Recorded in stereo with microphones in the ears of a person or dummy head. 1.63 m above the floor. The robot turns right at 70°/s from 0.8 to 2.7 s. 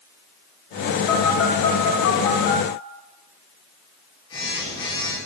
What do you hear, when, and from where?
1.1 s a phone buzzing: 40° left (ahead or behind), 1.4 m; by 5.2 s 20° left (ahead or behind), 1.4 m